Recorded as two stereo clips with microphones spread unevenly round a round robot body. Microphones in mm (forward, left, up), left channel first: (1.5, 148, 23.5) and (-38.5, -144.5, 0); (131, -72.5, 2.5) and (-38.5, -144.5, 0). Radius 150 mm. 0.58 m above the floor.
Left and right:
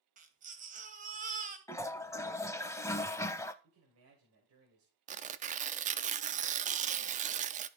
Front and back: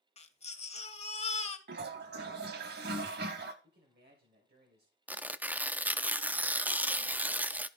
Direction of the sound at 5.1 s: 85° right.